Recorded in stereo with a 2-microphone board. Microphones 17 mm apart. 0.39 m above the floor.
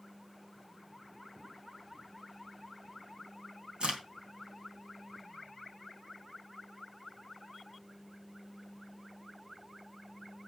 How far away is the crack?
About 3 m.